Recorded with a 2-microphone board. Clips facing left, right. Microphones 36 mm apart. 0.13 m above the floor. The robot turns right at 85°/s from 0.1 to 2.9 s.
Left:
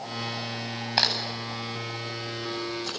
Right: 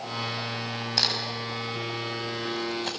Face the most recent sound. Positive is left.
turn(degrees=-40)  # may be behind; listen again after turning